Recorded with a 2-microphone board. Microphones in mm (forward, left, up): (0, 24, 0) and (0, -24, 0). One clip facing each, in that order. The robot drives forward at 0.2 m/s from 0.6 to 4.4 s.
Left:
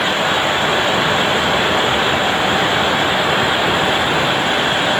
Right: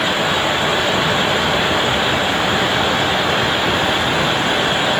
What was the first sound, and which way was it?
Only background noise.